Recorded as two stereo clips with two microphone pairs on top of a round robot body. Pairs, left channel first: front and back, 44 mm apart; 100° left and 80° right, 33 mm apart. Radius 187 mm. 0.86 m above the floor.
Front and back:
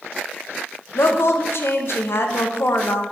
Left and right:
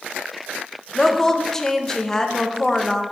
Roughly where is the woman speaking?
Ahead.